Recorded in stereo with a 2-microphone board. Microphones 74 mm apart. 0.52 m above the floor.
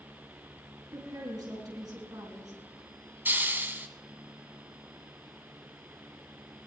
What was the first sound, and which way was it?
A woman speaking, 65° right (ahead or behind).